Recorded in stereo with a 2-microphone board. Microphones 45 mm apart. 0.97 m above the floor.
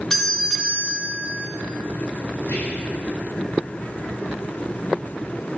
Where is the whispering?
65° left (ahead or behind), 1.6 m.